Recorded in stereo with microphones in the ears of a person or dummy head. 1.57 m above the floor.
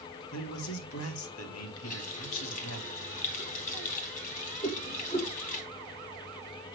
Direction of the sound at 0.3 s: 75° left (ahead or behind).